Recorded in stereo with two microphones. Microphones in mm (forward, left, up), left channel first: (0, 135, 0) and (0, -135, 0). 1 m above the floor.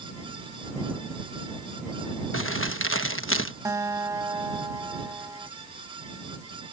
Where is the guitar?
10° right (ahead or behind).